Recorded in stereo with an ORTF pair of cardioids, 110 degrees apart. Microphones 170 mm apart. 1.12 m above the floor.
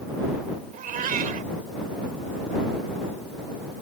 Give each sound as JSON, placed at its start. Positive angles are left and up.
{"t": 0.7, "sound": "a cat meowing", "azimuth_deg": -50}